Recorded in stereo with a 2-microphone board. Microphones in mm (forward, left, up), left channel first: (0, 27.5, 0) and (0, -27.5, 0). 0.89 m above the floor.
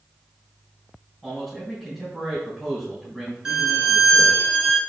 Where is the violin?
10° right (ahead or behind), 1.3 m.